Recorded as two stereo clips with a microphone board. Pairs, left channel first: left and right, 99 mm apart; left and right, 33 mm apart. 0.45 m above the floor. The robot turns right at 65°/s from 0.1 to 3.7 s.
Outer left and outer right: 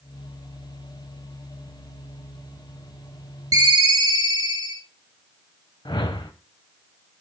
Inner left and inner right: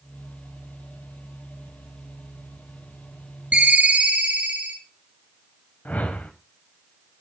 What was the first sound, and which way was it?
A ringtone, 35° right (ahead or behind).